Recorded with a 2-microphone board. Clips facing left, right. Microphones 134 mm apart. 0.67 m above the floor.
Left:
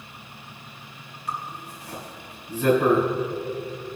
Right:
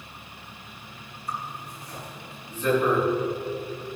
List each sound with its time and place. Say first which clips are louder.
1.3 s a zipper: left 1 dB; 85° left, 3.5 m